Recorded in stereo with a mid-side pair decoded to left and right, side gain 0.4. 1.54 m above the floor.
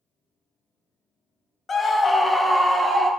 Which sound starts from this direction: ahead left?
A scream, at 1.7 s.